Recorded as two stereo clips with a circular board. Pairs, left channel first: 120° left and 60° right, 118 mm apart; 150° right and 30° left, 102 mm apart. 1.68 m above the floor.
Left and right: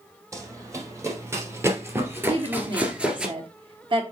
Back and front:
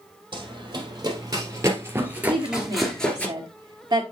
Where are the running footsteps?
Straight ahead, 3 m; by 3.3 s 125° right, 1.7 m.